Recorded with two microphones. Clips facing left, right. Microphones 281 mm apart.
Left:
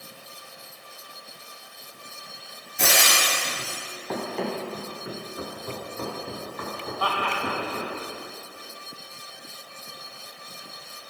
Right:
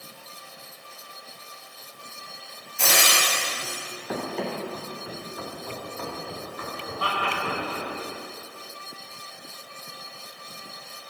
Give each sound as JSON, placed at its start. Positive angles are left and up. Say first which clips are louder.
{"t": 2.8, "sound": "frying", "louder": "even", "side_deg": 65, "distance_m": 1.7}
{"t": 4.1, "sound": "running footsteps", "louder": "left 1 dB", "side_deg": -10, "distance_m": 1.7}
{"t": 7.0, "sound": "laughter", "louder": "left 1 dB", "side_deg": -30, "distance_m": 1.4}